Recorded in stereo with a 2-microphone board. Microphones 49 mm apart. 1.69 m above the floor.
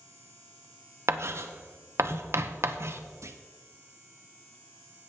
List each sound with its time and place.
1.1 s writing: 60° right (ahead or behind), 0.8 m
3.2 s a clunk: 75° right (ahead or behind), 0.8 m